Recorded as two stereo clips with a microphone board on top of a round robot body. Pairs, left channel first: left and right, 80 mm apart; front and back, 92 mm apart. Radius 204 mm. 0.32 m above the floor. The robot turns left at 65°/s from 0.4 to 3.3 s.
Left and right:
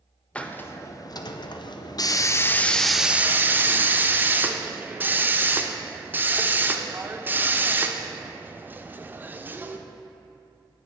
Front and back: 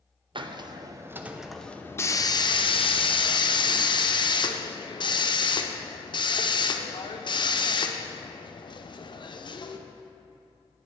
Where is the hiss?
165° left, 0.7 m; by 9.8 s 25° right, 0.7 m.